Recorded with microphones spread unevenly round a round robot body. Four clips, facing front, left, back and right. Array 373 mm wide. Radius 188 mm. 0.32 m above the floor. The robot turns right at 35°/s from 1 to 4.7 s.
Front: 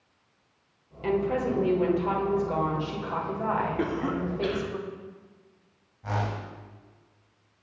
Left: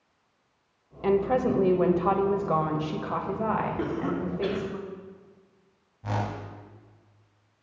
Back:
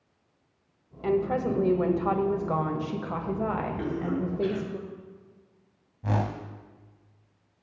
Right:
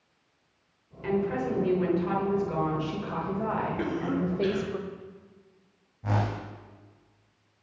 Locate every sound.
1.0 s a woman speaking: 95° left, 1.6 m; by 4.8 s 140° right, 1.6 m
3.8 s a cough: 15° left, 4 m; by 4.7 s 50° left, 4 m
6.0 s a whoosh: 160° right, 0.9 m